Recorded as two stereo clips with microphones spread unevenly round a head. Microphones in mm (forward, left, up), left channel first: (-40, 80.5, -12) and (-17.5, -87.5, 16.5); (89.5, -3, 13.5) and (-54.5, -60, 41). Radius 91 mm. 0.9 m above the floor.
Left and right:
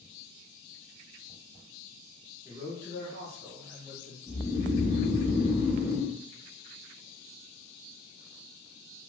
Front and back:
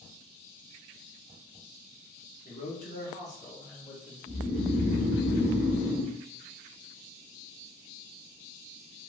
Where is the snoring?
5° right, 1.7 m.